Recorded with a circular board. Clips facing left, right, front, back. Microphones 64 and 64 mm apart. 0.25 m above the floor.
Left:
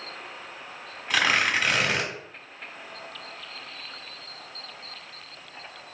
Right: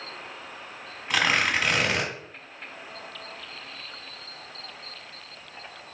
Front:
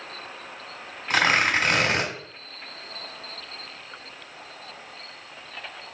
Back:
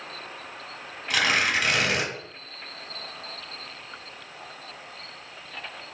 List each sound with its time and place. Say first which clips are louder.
1.1 s tearing paper: even, front 3 dB; straight ahead, 1.4 m